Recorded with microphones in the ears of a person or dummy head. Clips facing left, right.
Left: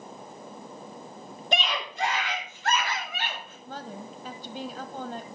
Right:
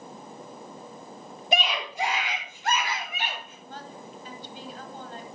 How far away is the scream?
About 3.5 m.